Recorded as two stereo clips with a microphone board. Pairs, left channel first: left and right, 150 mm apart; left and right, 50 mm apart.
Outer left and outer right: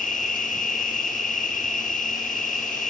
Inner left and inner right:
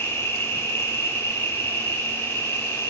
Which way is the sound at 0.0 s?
65° left (ahead or behind).